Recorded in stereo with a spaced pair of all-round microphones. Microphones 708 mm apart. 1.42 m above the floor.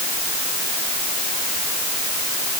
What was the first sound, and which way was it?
Only background noise.